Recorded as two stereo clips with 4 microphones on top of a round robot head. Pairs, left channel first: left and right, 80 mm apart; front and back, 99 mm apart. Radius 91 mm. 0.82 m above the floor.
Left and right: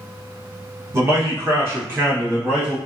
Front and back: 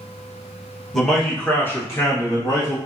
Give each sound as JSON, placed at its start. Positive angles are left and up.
{"t": 0.9, "sound": "a man speaking", "azimuth_deg": -90, "distance_m": 1.1}